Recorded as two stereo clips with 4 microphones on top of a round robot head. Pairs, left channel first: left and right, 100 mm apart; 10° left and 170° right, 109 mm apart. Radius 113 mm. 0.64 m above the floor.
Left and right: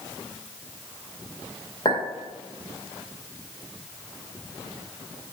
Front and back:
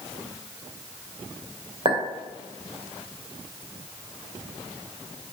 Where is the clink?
145° left, 2 m.